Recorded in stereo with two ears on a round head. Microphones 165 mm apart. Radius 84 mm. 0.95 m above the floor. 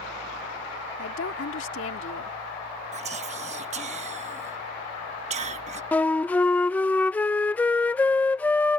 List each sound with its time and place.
1.0 s a woman speaking: 80° left
2.9 s whispering: 40° right (ahead or behind)
5.9 s a flute: 10° left (ahead or behind)